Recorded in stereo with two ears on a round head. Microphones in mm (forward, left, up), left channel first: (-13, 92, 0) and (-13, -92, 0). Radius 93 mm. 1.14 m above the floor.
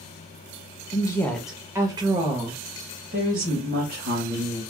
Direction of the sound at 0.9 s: 25° left (ahead or behind).